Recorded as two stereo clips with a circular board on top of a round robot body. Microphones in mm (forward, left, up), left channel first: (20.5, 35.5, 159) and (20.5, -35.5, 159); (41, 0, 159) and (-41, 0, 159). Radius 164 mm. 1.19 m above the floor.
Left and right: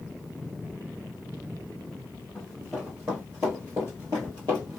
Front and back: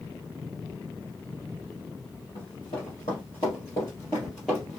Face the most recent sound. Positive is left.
turn(degrees=-100)